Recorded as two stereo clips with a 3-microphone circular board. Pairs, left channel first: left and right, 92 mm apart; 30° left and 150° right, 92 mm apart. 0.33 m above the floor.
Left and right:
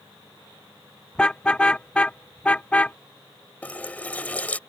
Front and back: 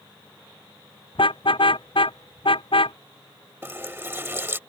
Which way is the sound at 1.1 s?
10° left.